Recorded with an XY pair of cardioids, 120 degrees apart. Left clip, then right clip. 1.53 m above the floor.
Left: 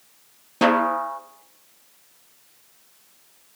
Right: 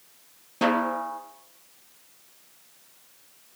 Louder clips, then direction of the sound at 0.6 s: Left 5 dB; 35° left.